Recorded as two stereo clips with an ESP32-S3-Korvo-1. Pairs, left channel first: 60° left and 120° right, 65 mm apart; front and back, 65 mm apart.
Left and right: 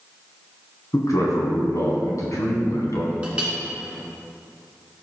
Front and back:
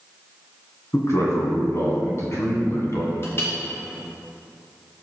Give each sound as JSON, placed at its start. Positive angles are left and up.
{"t": 0.9, "sound": "a man speaking", "azimuth_deg": 35, "distance_m": 2.0}
{"t": 3.2, "sound": "a clink", "azimuth_deg": -50, "distance_m": 2.0}